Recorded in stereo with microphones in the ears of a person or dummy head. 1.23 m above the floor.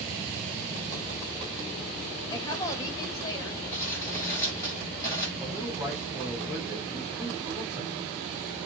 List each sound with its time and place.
2.3 s a woman speaking: 20° left (ahead or behind), 1.3 m
3.7 s crumpling: 20° left (ahead or behind), 4.5 m
5.4 s a man speaking: 5° right (ahead or behind), 3.5 m